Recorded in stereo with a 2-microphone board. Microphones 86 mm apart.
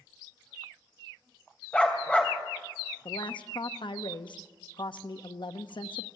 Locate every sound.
1.7 s a dog barking: 15° left (ahead or behind), 3 m
3.0 s a woman speaking: 70° left (ahead or behind), 1.2 m